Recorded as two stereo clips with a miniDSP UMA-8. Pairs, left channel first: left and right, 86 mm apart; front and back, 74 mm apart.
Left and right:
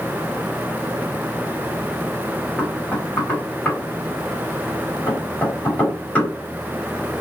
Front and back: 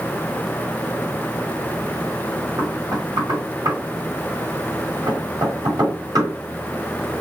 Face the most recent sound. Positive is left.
turn(degrees=160)